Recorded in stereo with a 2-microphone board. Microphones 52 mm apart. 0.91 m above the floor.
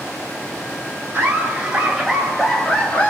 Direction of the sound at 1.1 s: 30° right (ahead or behind).